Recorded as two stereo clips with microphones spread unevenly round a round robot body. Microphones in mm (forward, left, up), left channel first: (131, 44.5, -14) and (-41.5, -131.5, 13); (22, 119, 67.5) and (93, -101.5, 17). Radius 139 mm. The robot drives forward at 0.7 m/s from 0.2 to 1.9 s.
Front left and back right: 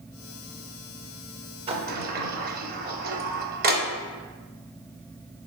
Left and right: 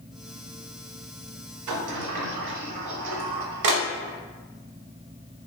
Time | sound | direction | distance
1.7 | a sliding door | 65° right | 0.6 m